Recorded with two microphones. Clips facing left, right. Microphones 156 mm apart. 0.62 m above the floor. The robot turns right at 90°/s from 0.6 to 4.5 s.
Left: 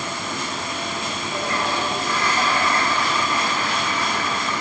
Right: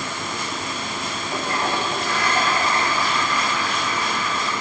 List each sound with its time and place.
1.3 s a toilet flushing: 160° right, 1.1 m; by 4.5 s 130° left, 1.1 m